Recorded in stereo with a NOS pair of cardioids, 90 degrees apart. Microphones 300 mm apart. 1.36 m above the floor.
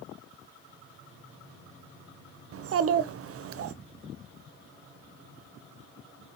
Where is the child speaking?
45° right, 0.6 m.